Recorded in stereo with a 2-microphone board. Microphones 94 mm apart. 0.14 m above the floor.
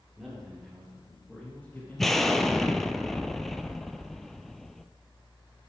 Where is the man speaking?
10° right (ahead or behind), 2.5 m; by 3.0 s 35° left (ahead or behind), 1.7 m.